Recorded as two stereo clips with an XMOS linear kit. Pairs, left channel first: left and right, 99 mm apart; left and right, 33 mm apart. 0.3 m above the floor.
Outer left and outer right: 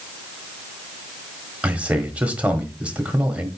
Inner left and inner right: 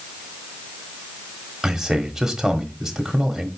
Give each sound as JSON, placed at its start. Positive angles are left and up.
{"t": 1.6, "sound": "a man speaking", "side_deg": -15, "distance_m": 1.1}